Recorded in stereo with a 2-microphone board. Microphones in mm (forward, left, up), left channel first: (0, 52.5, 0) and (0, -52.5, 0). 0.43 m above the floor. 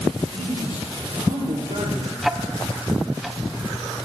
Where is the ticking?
Centre (ahead or behind), 0.7 m.